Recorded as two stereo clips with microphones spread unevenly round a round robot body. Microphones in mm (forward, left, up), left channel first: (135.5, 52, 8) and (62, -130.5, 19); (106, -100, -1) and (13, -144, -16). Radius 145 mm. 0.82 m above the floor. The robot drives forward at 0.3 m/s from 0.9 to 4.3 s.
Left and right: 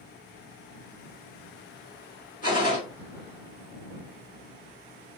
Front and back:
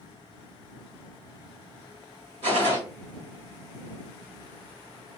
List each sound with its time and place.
2.4 s a gunshot: 135° left, 1.3 m